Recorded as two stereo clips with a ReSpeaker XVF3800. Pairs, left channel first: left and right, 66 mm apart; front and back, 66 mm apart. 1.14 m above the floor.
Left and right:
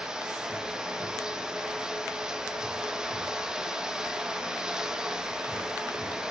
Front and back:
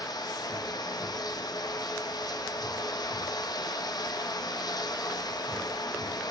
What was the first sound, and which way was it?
Running water, 10° right.